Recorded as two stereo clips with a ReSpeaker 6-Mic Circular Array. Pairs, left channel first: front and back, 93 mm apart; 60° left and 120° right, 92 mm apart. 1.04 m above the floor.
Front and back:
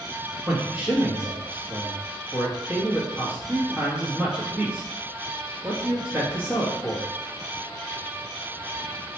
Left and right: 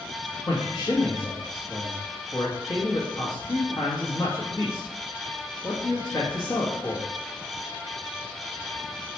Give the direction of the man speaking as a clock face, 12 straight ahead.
8 o'clock.